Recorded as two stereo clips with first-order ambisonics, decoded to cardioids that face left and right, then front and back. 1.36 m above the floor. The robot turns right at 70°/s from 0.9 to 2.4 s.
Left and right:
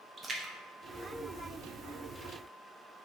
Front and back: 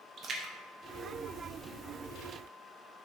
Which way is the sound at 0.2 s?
145° right.